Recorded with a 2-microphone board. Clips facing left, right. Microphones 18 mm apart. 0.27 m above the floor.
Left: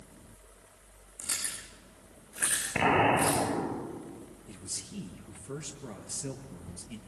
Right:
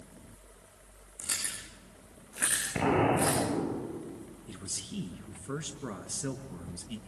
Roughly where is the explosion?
Left.